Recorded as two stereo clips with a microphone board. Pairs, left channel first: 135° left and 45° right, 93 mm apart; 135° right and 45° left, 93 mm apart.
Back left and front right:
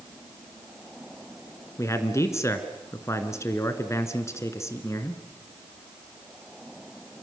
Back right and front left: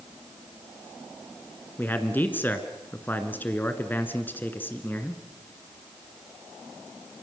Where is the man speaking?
170° left, 2.0 m.